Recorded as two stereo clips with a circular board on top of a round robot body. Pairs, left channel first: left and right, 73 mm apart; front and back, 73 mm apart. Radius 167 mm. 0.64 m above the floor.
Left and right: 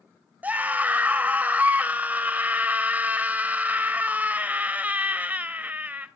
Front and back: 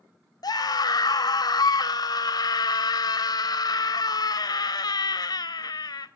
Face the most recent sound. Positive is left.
turn(degrees=-20)